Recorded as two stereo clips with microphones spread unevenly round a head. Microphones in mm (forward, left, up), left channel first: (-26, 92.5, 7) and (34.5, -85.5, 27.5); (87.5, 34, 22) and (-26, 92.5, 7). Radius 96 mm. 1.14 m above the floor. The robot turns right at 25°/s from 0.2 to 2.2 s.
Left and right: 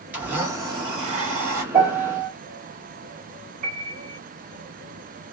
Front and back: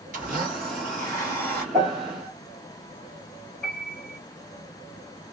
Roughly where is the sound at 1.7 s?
Behind right.